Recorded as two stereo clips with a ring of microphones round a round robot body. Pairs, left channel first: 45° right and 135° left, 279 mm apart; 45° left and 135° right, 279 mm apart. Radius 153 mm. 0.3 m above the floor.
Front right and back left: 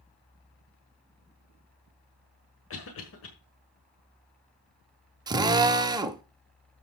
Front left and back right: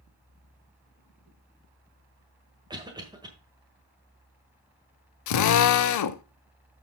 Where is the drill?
60° left, 0.7 m.